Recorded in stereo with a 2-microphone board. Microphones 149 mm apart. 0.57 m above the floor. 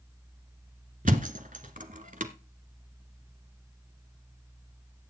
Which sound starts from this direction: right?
A thud, at 1.1 s.